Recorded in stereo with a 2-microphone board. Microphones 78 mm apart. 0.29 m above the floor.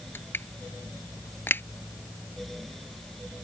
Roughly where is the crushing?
Left.